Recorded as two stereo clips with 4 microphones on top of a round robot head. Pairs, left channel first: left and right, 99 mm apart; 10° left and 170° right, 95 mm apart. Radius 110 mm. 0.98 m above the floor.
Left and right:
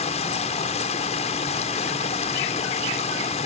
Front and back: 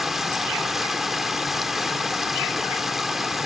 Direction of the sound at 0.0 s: 100° left.